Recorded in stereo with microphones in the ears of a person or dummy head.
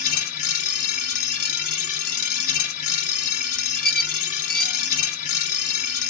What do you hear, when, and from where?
0.0 s a machine running: 50° left (ahead or behind), 2 m
3.8 s a squeak: 5° left (ahead or behind), 0.6 m